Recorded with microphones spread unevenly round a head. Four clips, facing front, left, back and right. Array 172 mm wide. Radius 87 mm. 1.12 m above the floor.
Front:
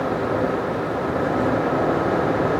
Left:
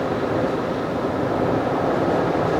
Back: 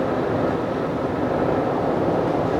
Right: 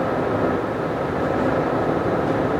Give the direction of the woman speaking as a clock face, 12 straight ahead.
I don't hear a woman speaking.